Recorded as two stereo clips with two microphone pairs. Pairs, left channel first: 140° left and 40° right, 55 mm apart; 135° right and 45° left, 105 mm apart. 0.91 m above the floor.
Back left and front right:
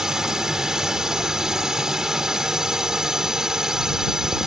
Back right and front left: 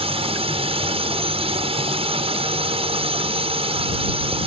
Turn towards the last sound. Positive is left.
turn(degrees=35)